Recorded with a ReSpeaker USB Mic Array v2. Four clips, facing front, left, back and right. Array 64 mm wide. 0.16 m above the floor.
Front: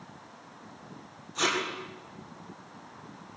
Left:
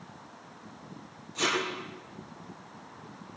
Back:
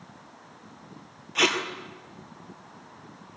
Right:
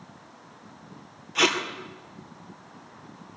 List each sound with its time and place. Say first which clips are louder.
1.4 s tape being pulled: right 5 dB, back 4 dB; 145° right, 3.5 m